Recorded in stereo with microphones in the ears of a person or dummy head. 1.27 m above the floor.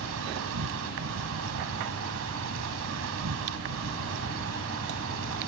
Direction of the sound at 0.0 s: 70° right (ahead or behind).